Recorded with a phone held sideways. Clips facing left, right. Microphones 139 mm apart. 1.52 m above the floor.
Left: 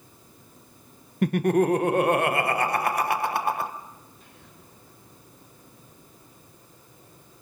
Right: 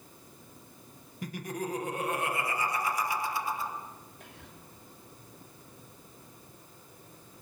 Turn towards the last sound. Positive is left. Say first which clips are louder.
# right 1 dB
turn(degrees=-85)